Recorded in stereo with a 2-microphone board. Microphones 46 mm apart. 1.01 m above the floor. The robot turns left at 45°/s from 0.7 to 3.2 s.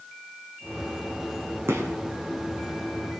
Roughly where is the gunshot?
Right.